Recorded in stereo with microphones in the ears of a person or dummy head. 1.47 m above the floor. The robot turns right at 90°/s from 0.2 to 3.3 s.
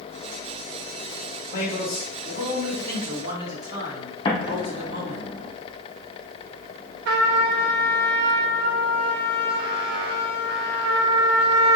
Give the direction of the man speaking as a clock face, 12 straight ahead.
10 o'clock.